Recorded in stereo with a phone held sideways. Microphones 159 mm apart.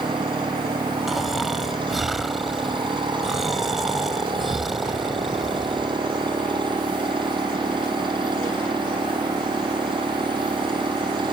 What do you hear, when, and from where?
0.0 s a machine running: 30° right (ahead or behind)
1.1 s snoring: centre (ahead or behind)